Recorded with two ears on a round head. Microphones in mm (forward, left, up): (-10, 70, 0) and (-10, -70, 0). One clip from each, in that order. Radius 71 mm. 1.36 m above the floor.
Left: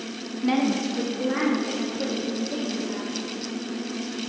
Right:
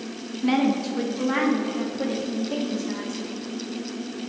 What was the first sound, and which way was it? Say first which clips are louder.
A woman speaking: right 1 dB; 5° right (ahead or behind).